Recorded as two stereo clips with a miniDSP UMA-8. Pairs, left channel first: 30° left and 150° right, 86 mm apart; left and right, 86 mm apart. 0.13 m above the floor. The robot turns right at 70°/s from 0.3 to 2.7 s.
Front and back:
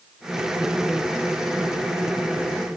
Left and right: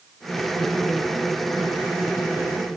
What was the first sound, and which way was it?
Only background noise.